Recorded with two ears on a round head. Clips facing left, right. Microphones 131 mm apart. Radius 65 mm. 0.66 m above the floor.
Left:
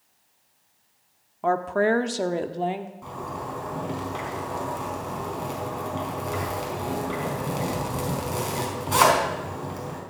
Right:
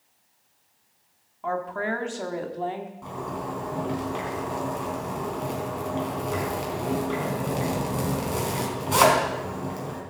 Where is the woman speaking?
60° left (ahead or behind), 1.3 m; by 2.9 s 20° left (ahead or behind), 1.5 m.